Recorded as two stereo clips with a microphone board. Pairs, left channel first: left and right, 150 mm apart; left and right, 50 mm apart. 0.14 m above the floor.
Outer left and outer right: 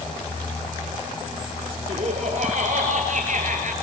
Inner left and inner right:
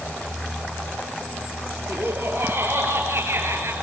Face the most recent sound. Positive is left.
turn(degrees=-60)  # may be behind; listen again after turning